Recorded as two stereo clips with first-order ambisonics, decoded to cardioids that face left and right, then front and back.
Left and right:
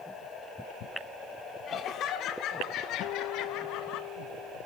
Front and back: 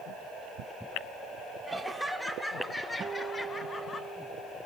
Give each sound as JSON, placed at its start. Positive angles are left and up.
{"t": 1.7, "sound": "laughter", "azimuth_deg": 110, "distance_m": 1.4}
{"t": 3.0, "sound": "a guitar", "azimuth_deg": 120, "distance_m": 0.5}